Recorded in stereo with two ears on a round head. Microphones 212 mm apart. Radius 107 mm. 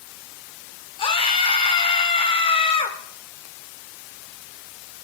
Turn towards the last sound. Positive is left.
turn(degrees=25)  # may be behind; listen again after turning